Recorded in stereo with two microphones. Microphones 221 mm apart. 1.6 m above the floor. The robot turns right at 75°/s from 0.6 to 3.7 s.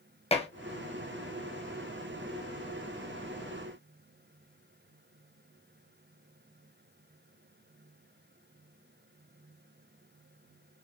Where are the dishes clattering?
30° left (ahead or behind), 1.0 m.